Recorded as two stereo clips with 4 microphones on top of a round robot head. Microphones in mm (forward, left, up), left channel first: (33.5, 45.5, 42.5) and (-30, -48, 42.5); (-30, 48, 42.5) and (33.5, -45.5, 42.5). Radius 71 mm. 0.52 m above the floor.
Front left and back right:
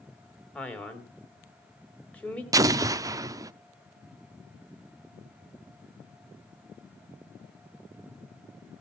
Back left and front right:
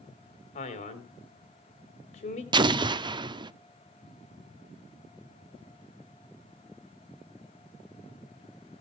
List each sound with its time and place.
0.6 s a man speaking: 135° left, 3 m
2.5 s an explosion: 80° right, 0.7 m